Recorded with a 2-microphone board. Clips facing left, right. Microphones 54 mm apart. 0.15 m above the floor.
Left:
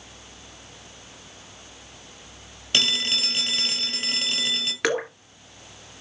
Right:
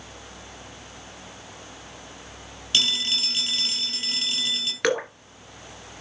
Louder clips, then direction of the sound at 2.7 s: Left 1 dB; 35° left (ahead or behind).